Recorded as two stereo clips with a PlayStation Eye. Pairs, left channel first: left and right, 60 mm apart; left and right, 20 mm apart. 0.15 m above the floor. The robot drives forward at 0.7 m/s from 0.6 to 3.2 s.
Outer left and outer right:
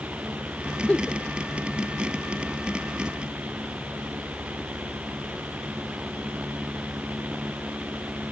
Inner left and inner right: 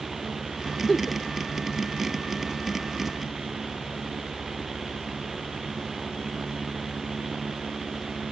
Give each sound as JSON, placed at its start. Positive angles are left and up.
{"t": 0.9, "sound": "a giggle", "side_deg": 15}